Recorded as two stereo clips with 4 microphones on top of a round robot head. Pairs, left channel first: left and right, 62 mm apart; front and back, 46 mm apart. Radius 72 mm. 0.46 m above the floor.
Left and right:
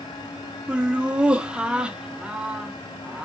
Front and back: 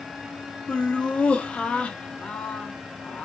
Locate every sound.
0.7 s laughter: 30° right, 0.7 m